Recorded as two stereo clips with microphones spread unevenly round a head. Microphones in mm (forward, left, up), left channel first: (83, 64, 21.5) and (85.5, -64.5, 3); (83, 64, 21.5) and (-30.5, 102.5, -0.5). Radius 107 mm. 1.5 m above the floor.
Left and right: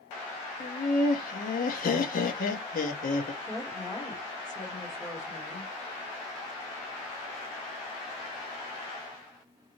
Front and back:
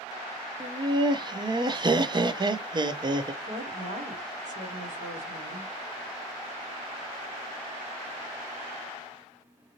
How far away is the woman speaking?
About 1.3 m.